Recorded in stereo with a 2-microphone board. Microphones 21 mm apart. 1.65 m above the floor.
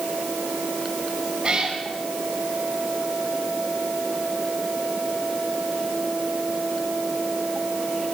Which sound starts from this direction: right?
A cat meowing, at 1.4 s.